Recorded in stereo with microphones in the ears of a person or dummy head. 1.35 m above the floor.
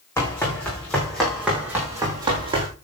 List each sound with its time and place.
0.2 s running footsteps: 15° left (ahead or behind), 5.5 m; by 2.7 s 25° right (ahead or behind), 4 m